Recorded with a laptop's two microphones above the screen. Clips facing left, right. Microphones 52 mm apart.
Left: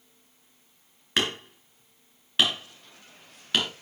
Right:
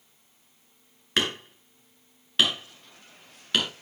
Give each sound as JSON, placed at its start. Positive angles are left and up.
{"t": 1.2, "sound": "hammering", "side_deg": 5, "distance_m": 3.5}